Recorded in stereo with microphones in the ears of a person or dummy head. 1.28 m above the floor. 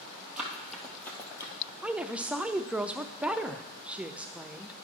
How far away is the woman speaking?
About 0.5 m.